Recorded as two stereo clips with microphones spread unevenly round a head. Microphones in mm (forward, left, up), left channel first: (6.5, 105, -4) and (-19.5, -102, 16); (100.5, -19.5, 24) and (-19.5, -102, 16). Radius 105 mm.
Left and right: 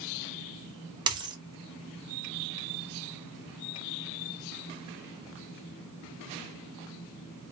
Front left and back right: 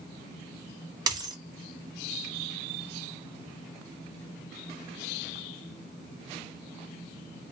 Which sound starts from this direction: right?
A dropped coin, at 1.1 s.